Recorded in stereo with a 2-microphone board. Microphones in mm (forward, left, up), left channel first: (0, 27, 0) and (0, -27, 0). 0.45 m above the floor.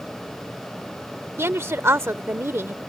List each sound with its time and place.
1.4 s a woman speaking: 50° right (ahead or behind)